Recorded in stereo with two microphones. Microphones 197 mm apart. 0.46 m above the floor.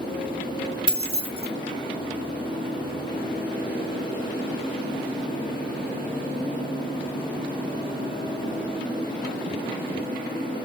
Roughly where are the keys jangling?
Right.